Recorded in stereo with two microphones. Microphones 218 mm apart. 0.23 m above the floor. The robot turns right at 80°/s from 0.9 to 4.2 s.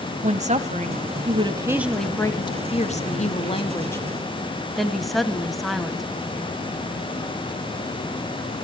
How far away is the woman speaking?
About 1.2 m.